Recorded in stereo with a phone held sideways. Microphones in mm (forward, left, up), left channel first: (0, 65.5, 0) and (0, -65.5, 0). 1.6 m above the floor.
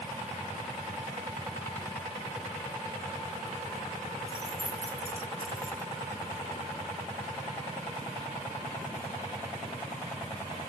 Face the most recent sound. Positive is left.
turn(degrees=-5)  # may be behind; listen again after turning